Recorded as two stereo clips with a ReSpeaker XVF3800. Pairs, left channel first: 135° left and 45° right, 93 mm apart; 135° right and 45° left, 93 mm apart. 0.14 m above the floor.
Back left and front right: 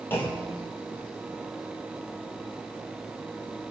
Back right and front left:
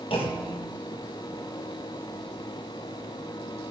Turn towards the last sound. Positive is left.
turn(degrees=-160)